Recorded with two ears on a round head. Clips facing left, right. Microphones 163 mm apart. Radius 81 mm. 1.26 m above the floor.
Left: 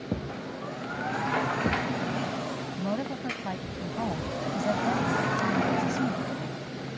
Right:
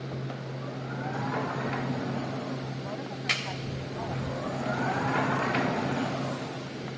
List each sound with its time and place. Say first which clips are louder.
0.1 s a thud: left 3 dB; 55° left (ahead or behind)
2.8 s a woman speaking: left 5 dB; 60° left (ahead or behind)